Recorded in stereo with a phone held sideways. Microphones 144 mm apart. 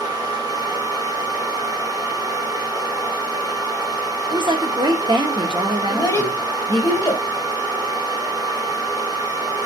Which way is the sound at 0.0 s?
25° right (ahead or behind).